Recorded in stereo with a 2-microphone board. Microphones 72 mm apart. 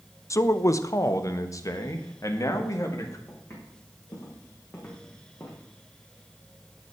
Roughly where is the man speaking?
Left.